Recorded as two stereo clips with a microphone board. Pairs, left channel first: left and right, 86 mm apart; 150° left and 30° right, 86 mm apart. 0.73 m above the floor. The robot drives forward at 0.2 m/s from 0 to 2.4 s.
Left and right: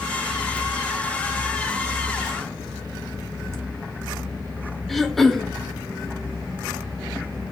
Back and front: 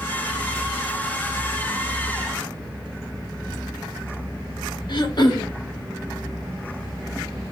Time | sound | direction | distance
3.5 | laughter | 130° right | 1.0 m
4.9 | throat clearing | straight behind | 0.6 m